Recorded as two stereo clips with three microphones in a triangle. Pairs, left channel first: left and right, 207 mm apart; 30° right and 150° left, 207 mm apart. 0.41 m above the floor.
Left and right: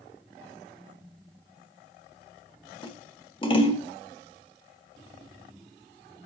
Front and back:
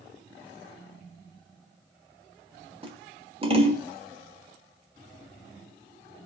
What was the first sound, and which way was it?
Scissors, 125° left.